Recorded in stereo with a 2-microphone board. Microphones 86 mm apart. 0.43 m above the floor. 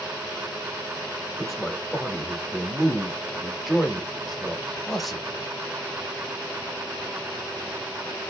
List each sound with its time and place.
1.4 s a man speaking: centre (ahead or behind), 0.9 m